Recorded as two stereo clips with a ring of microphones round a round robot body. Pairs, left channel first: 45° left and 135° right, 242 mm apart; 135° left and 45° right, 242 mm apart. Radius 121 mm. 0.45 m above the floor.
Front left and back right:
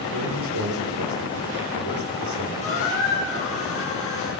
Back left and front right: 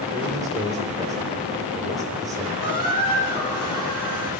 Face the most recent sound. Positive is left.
turn(degrees=-20)